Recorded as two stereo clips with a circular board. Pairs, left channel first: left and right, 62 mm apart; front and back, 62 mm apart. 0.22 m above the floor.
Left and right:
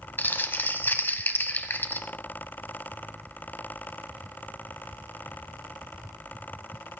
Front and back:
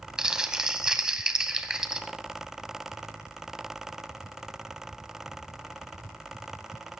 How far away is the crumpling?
About 1.2 m.